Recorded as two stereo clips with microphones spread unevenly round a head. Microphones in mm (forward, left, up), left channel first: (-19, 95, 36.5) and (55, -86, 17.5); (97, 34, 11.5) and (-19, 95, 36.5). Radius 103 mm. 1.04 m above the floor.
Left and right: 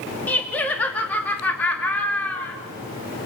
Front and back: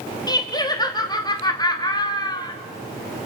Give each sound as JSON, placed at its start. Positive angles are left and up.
{"t": 0.3, "sound": "laughter", "azimuth_deg": 30, "distance_m": 2.5}